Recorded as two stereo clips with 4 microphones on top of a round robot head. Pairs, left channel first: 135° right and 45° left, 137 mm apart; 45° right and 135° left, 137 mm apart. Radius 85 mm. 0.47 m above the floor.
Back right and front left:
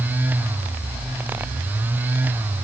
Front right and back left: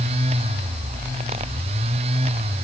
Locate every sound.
Only background noise.